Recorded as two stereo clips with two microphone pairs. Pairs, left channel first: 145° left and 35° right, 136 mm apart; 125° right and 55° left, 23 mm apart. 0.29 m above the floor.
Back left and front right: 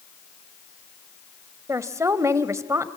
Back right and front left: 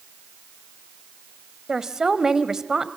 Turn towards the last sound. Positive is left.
turn(degrees=15)